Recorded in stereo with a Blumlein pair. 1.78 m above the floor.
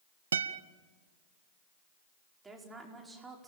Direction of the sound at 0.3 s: 70° right.